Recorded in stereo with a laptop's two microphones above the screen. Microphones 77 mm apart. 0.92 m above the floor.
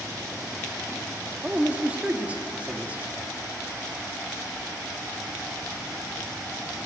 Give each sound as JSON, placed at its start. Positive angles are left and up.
{"t": 1.4, "sound": "a man speaking", "side_deg": -20, "distance_m": 1.6}